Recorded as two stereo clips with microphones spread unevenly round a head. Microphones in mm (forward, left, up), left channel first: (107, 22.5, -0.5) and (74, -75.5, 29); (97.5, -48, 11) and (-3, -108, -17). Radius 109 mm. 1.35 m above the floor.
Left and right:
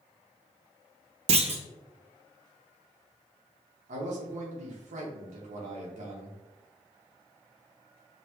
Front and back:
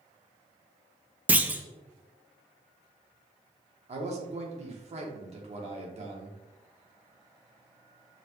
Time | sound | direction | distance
1.3 | a clunk | 85° right | 0.6 m
3.9 | a man speaking | 125° right | 1.2 m